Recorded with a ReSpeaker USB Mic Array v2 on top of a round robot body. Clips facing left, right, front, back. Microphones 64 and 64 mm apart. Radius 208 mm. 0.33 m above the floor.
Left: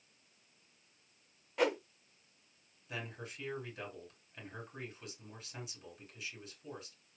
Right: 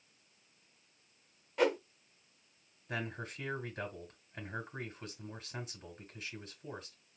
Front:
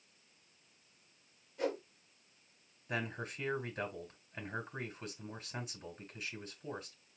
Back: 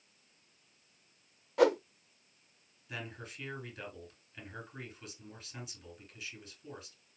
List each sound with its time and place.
1.6 s a whoosh: straight behind, 0.6 m
2.9 s a man speaking: 40° right, 3 m